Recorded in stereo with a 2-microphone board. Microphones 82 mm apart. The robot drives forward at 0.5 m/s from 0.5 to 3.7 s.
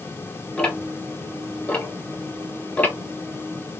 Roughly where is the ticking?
Centre.